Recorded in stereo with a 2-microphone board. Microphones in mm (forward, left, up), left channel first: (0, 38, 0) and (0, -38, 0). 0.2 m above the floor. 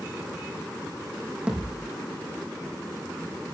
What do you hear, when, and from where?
1.5 s a thud: 15° right (ahead or behind), 5 m